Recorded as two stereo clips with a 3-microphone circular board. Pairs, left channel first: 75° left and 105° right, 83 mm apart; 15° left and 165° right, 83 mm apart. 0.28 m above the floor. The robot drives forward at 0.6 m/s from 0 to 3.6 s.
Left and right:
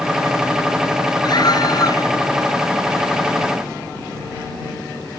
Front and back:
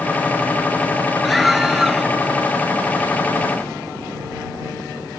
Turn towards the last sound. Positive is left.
turn(degrees=120)